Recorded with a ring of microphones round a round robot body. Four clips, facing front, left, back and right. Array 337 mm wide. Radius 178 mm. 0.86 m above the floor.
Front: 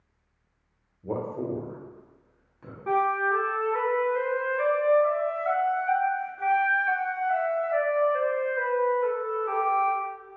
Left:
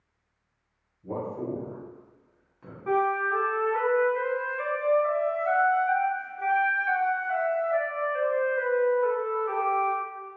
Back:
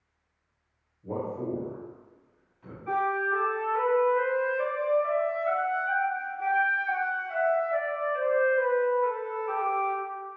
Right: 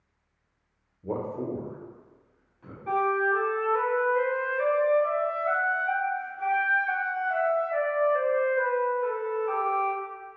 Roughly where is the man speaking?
Ahead right.